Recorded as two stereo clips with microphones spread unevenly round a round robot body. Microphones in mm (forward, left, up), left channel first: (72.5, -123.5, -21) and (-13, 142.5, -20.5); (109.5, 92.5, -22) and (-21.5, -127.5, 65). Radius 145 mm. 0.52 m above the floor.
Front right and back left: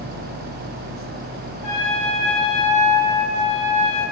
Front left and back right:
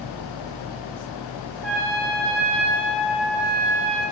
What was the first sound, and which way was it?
A trumpet, 105° right.